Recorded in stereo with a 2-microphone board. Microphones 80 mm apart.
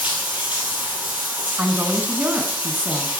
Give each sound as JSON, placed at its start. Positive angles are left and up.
{"t": 0.0, "sound": "running water", "side_deg": -20, "distance_m": 2.5}
{"t": 1.6, "sound": "a woman speaking", "side_deg": -20, "distance_m": 1.1}